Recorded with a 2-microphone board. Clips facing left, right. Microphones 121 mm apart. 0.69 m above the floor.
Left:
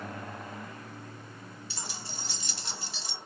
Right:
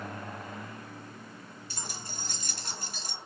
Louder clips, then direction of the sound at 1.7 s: Right 1 dB; 50° right (ahead or behind).